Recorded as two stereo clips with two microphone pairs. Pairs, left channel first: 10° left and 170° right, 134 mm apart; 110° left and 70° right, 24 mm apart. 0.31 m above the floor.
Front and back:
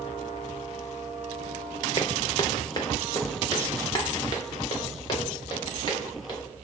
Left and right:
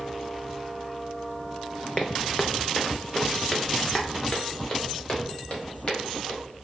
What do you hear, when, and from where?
2.0 s footsteps: 65° left, 0.7 m; by 6.4 s 70° left, 4 m